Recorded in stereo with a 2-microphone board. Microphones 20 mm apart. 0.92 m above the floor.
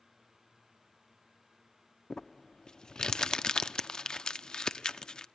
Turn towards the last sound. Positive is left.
turn(degrees=35)  # may be behind; listen again after turning